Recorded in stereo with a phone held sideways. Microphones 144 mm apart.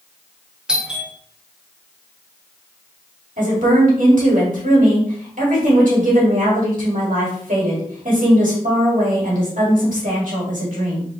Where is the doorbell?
5° right (ahead or behind), 0.9 m.